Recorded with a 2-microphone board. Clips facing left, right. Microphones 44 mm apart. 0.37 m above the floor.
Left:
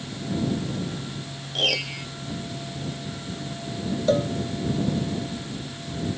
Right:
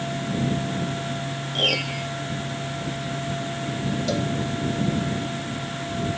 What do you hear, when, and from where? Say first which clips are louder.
1.6 s a piano: right 1 dB; 5° right (ahead or behind)
4.1 s a cowbell: left 7 dB; 35° left (ahead or behind)